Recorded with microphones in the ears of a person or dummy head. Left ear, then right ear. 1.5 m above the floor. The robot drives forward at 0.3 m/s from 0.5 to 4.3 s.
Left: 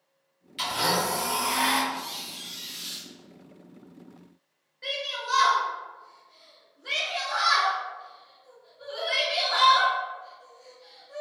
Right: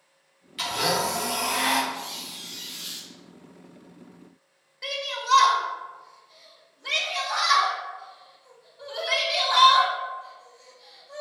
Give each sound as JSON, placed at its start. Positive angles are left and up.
{"t": 0.6, "sound": "a blender", "side_deg": 0, "distance_m": 1.2}
{"t": 1.9, "sound": "a squeak", "side_deg": 0, "distance_m": 0.8}
{"t": 4.8, "sound": "a shout", "side_deg": -65, "distance_m": 1.6}